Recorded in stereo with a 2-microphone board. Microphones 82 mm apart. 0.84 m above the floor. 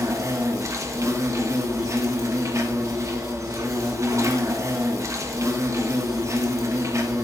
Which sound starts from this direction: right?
An insect, at 0.0 s.